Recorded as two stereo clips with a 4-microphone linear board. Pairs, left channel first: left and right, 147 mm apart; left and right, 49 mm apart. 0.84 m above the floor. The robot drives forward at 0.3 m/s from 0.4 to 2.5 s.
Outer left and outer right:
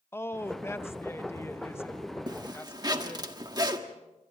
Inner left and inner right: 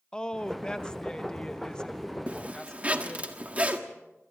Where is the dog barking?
No dog barking in this recording.